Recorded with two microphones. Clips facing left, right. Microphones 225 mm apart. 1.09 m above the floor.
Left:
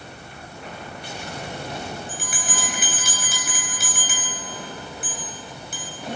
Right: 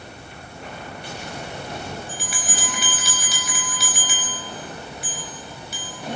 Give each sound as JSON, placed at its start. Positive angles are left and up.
{"t": 2.1, "sound": "a bell", "side_deg": 50, "distance_m": 4.0}